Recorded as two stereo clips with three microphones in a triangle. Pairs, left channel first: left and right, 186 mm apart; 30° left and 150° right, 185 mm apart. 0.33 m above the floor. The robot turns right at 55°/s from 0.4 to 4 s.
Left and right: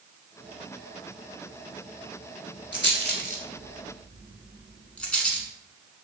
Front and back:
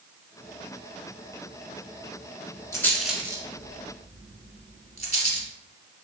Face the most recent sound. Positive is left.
turn(degrees=175)